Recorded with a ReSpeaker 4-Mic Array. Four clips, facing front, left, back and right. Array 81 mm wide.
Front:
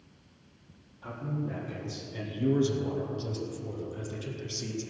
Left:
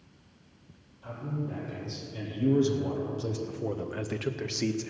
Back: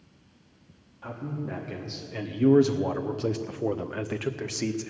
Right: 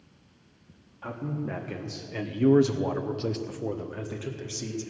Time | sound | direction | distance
1.0 | a man speaking | 105° right | 1.8 m